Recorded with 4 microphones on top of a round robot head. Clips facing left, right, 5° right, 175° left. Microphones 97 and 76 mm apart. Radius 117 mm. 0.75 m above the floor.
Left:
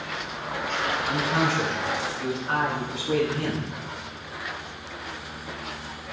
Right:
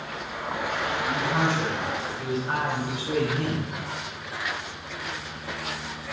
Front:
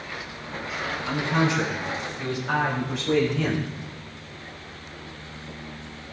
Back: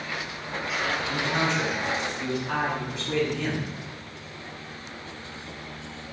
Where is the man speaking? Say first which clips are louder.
Even, front 7 dB; 20° right, 7.5 m; by 3.7 s 10° right, 3.5 m.